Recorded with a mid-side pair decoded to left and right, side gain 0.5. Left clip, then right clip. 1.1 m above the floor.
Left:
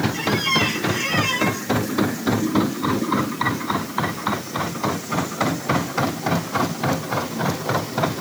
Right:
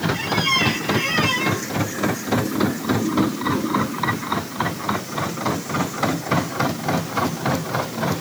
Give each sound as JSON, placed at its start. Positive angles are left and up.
{"t": 0.1, "sound": "a squeak", "azimuth_deg": -10}